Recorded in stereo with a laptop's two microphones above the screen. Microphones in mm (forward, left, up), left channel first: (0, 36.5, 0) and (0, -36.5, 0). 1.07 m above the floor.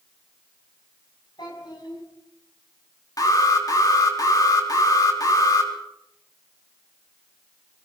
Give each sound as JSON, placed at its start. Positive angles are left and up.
{"t": 1.4, "sound": "a child speaking", "side_deg": 75, "distance_m": 7.0}
{"t": 3.2, "sound": "an alarm", "side_deg": 50, "distance_m": 4.0}